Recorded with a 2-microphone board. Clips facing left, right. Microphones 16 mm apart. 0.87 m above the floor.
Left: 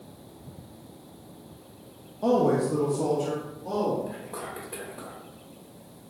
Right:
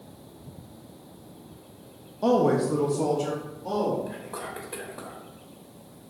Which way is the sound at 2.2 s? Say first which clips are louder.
Right 1 dB; 40° right (ahead or behind).